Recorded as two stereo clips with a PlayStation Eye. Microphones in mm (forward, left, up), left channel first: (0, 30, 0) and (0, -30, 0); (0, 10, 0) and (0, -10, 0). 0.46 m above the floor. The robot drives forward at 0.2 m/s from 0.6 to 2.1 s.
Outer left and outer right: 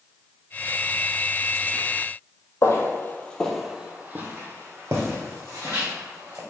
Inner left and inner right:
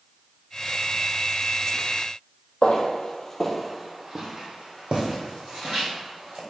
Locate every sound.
2.6 s footsteps: 55° left (ahead or behind), 0.8 m; by 6.4 s 60° right (ahead or behind), 2 m